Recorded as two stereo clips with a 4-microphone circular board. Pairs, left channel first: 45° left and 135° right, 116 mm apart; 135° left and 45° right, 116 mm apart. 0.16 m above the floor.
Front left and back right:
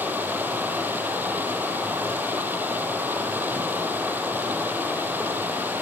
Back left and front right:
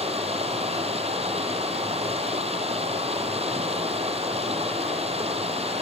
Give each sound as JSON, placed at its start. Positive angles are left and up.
{"t": 0.0, "sound": "running water", "azimuth_deg": -65, "distance_m": 4.5}